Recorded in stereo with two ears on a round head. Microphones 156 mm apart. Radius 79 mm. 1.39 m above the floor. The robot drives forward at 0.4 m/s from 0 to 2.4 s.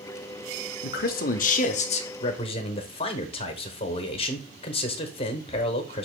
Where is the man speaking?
60° left (ahead or behind), 0.6 m; by 6.0 s 35° left (ahead or behind), 0.9 m.